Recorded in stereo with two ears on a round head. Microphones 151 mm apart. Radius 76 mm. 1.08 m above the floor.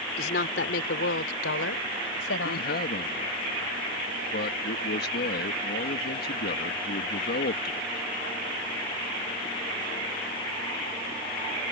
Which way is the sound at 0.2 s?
60° left (ahead or behind).